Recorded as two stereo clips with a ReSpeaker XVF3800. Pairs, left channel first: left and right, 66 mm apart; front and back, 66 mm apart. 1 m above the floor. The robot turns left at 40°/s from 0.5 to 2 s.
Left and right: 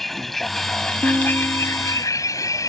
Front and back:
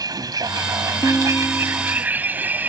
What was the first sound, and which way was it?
A vehicle, straight behind.